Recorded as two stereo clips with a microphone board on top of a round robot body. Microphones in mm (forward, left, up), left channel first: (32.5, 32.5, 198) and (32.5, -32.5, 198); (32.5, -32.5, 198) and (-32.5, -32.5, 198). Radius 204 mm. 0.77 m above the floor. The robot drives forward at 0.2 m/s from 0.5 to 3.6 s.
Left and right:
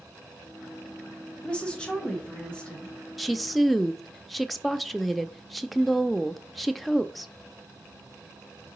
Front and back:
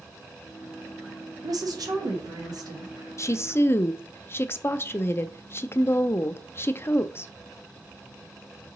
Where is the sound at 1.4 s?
165° left, 1.0 m.